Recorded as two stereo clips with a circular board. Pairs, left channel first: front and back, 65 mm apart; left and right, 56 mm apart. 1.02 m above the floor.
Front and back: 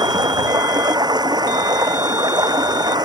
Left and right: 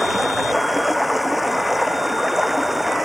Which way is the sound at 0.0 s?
Straight behind.